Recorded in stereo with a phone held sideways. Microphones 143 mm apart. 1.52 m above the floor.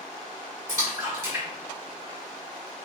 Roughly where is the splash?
Right.